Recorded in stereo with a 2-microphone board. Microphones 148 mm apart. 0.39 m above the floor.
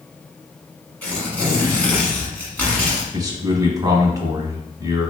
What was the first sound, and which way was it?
Tearing paper, 10° left (ahead or behind).